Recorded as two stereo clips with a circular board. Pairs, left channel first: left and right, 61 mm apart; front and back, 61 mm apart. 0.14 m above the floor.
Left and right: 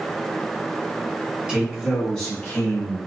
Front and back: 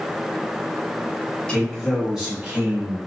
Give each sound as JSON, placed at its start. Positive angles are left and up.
{"t": 1.5, "sound": "a man speaking", "azimuth_deg": -50, "distance_m": 1.3}